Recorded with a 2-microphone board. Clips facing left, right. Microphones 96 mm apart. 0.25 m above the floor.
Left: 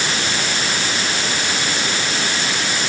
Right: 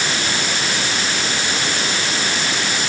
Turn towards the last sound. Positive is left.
No sound to turn to.